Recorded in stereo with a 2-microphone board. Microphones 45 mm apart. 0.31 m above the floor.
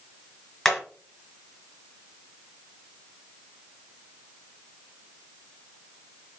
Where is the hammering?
10° left (ahead or behind), 3.5 m.